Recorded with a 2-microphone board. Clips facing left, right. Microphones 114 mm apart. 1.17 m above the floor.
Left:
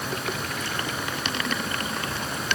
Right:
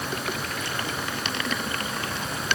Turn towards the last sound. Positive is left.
No sound to turn to.